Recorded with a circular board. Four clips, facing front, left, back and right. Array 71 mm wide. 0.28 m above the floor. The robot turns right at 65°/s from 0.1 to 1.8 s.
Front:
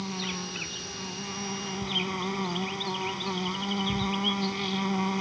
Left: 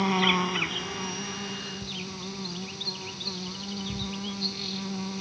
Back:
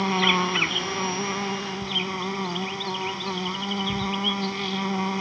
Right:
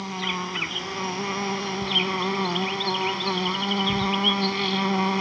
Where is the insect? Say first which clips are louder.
Left 5 dB, back 13 dB; 150° left; by 5.2 s 100° right.